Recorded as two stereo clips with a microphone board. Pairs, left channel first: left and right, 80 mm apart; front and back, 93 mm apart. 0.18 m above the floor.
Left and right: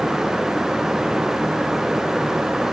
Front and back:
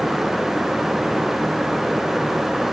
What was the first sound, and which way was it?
Only background noise.